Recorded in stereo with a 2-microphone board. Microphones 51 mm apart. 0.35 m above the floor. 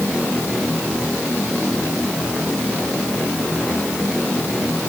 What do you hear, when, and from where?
Only background noise.